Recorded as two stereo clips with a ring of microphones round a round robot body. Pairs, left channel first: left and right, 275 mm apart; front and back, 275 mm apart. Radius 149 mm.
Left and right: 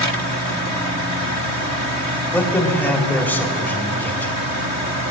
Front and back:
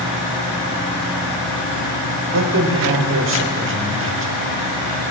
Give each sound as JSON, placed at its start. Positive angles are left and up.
{"t": 2.3, "sound": "a man speaking", "azimuth_deg": 170, "distance_m": 1.2}